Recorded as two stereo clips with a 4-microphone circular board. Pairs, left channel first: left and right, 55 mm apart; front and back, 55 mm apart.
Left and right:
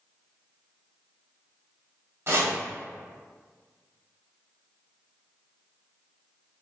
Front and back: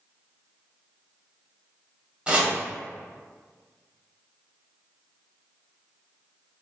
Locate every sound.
2.3 s chopping: 115° right, 0.7 m